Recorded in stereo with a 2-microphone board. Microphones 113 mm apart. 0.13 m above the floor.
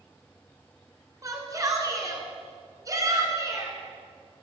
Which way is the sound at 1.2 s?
30° right (ahead or behind).